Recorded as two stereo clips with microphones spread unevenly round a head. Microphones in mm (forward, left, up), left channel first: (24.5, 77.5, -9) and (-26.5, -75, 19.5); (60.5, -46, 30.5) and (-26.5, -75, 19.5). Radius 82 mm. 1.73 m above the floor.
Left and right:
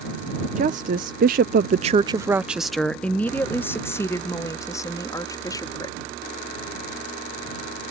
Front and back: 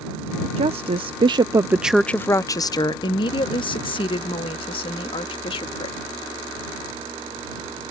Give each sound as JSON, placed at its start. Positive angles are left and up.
{"t": 0.6, "sound": "a woman speaking", "azimuth_deg": -150}